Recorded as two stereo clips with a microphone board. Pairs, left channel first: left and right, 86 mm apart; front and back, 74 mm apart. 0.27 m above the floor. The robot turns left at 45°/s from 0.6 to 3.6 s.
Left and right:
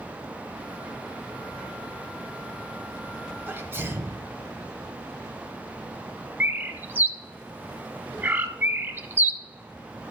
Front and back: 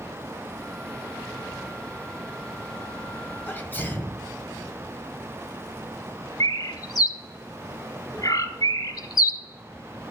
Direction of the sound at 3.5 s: 40° right.